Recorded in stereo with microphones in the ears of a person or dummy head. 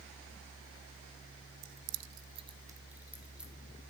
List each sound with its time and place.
1.6 s keys jangling: 60° right (ahead or behind), 0.7 m; by 3.5 s 5° right (ahead or behind), 2.5 m